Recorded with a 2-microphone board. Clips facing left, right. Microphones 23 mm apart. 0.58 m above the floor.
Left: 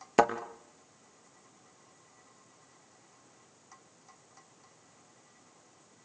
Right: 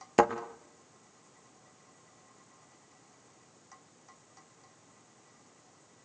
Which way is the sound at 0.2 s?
10° left (ahead or behind).